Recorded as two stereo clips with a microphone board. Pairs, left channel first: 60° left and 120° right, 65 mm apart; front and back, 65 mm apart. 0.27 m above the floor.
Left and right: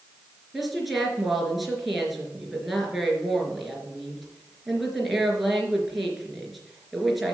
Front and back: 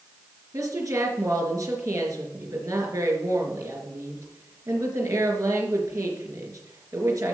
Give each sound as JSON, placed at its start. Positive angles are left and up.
{"t": 0.5, "sound": "a woman speaking", "azimuth_deg": 150, "distance_m": 3.5}